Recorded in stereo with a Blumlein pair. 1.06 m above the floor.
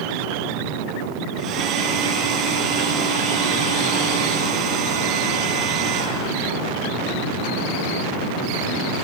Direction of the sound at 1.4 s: 35° right.